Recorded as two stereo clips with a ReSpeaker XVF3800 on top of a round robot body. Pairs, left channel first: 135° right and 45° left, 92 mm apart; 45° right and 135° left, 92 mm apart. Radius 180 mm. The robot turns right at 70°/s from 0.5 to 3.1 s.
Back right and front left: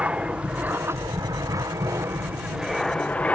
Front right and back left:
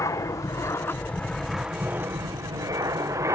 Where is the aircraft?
25° right; by 3.4 s 160° left.